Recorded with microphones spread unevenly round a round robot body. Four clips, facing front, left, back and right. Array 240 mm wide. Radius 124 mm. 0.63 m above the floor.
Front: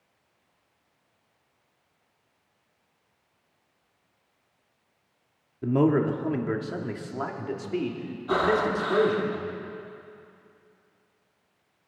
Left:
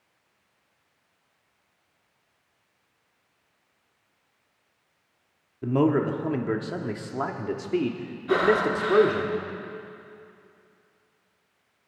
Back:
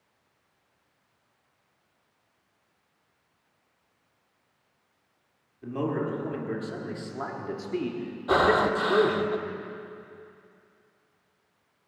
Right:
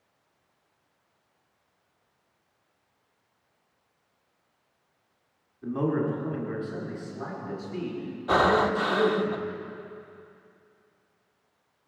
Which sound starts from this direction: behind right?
Breathing, at 8.3 s.